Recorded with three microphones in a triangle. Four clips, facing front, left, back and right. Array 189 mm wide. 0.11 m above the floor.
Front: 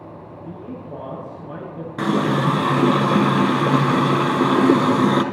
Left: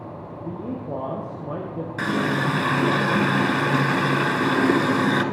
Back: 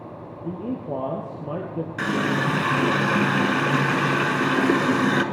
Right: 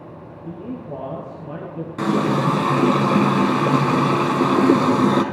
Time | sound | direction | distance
0.4 | a man speaking | 160° left | 2.5 m
2.0 | a running tap | 40° right | 1.1 m